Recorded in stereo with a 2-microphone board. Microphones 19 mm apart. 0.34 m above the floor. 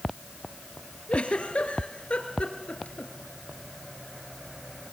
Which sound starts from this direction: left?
A giggle, at 1.1 s.